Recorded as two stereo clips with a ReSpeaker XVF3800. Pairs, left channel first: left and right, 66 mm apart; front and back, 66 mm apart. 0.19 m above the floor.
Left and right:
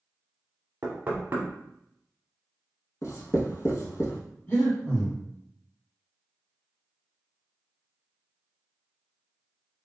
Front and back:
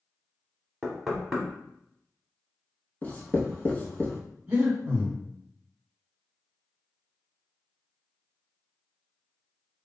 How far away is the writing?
About 0.8 m.